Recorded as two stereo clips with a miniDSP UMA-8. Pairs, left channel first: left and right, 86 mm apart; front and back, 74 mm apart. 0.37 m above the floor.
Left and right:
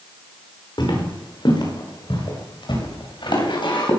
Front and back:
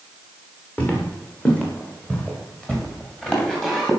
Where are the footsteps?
70° left, 6 m; by 3.9 s 85° left, 6.5 m.